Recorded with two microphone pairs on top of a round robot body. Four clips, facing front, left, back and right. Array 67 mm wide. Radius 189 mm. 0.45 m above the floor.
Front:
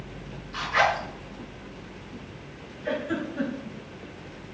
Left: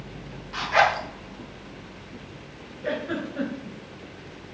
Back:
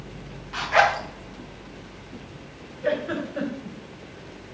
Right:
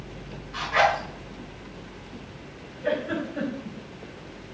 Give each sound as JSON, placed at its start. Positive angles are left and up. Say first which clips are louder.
{"t": 0.5, "sound": "a zipper", "louder": "left 1 dB, back 3 dB", "azimuth_deg": 160, "distance_m": 3.0}
{"t": 2.8, "sound": "a giggle", "louder": "right 2 dB, back 3 dB", "azimuth_deg": 180, "distance_m": 3.0}